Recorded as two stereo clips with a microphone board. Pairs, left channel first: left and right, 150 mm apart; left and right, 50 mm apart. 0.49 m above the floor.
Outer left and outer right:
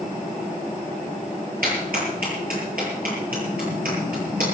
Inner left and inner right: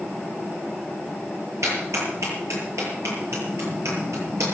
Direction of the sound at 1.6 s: 80° right.